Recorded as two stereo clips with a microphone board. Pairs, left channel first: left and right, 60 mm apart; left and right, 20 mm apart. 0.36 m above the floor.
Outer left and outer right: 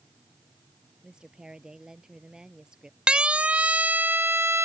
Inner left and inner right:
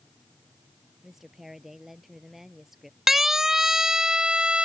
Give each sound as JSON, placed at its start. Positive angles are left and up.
{"t": 1.0, "sound": "a woman speaking", "side_deg": -10}
{"t": 3.1, "sound": "a siren", "side_deg": -15}